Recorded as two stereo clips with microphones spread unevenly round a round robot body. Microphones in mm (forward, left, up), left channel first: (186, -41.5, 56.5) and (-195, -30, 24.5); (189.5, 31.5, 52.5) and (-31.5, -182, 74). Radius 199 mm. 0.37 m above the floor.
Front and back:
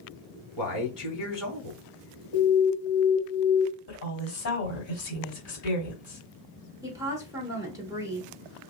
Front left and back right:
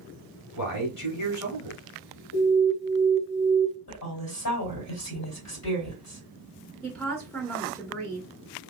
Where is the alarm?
70° left, 1.6 m.